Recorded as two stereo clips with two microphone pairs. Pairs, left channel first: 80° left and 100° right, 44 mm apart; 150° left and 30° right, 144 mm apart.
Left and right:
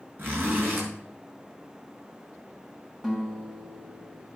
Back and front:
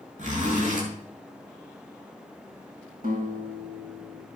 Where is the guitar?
15° right, 5.5 m.